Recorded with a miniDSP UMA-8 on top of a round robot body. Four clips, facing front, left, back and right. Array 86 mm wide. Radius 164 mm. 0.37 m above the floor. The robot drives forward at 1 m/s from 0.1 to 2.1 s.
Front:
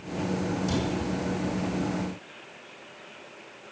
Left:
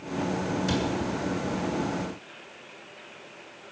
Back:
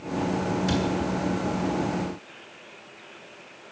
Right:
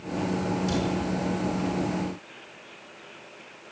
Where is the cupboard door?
150° left, 7 m.